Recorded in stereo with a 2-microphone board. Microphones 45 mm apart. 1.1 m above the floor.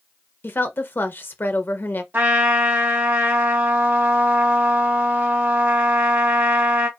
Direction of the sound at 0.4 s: 50° left (ahead or behind).